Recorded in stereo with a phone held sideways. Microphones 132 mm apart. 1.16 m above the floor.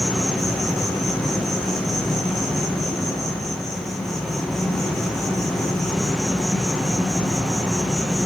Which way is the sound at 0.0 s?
Centre (ahead or behind).